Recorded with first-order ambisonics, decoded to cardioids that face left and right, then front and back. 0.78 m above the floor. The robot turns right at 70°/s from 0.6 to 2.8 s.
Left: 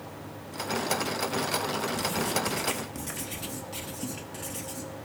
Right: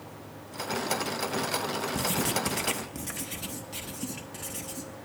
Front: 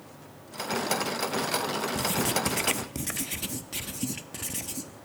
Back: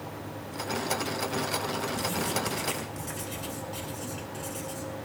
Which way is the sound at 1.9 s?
60° right.